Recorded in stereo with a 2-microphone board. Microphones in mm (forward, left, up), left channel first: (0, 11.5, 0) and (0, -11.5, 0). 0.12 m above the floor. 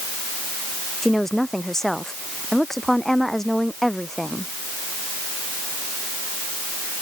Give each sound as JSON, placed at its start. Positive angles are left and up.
{"t": 1.0, "sound": "a woman speaking", "side_deg": 15}